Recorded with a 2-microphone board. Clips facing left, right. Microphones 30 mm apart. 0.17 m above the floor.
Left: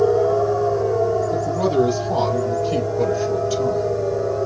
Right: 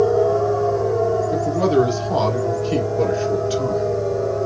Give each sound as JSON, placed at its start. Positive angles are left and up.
{"t": 1.3, "sound": "a man speaking", "side_deg": -35, "distance_m": 2.0}